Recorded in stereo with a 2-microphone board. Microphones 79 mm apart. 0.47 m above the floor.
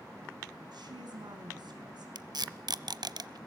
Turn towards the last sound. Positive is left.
turn(degrees=-70)  # may be behind; listen again after turning